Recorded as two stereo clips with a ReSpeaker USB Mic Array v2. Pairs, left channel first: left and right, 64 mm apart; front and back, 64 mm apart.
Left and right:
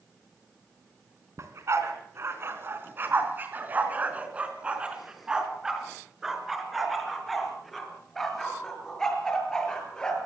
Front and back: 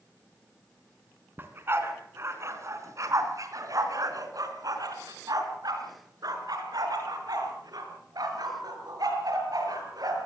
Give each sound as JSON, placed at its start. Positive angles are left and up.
{"t": 1.4, "sound": "a dog barking", "azimuth_deg": -125, "distance_m": 3.5}